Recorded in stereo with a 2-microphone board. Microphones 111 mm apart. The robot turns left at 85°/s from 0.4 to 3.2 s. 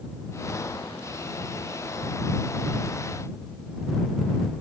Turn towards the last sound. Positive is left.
No sound to turn to.